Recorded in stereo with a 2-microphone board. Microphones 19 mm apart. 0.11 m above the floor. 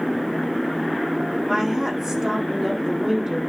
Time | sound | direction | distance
1.5 | a woman speaking | 20° right (ahead or behind) | 5.5 m